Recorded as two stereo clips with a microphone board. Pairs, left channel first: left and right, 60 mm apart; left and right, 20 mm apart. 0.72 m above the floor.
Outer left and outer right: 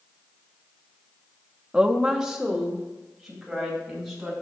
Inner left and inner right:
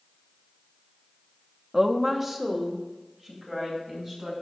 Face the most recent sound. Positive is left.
turn(degrees=-5)  # may be behind; listen again after turning